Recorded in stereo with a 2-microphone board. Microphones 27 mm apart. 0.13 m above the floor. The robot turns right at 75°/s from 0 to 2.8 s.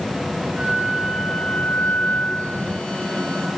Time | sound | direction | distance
0.6 | a flute | 50° right | 4.5 m